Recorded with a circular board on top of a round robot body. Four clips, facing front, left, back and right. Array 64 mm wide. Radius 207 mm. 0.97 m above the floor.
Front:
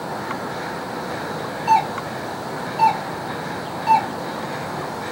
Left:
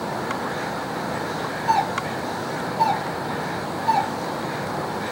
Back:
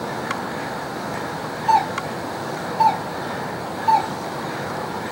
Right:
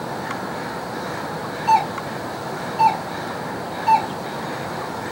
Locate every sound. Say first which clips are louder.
1.7 s a doorbell: right 4 dB, even; 45° right, 3 m